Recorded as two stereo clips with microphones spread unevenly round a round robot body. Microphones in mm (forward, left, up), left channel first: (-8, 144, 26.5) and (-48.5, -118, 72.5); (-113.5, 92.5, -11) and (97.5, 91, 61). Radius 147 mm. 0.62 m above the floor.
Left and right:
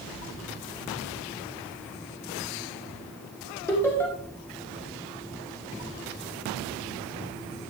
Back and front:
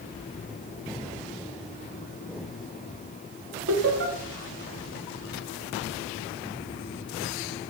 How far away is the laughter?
About 1.3 m.